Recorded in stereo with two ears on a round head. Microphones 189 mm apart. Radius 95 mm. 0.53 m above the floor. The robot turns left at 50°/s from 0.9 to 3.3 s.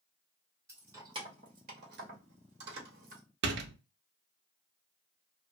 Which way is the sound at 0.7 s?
15° right (ahead or behind).